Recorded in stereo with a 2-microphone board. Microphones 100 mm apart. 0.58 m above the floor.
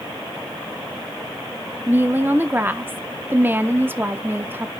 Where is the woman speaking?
20° right (ahead or behind), 0.9 m.